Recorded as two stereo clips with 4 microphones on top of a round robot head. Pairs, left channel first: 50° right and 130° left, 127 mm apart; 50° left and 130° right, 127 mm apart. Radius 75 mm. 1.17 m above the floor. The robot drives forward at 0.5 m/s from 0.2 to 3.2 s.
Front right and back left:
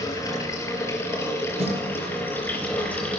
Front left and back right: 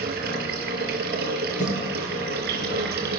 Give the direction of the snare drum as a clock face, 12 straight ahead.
9 o'clock.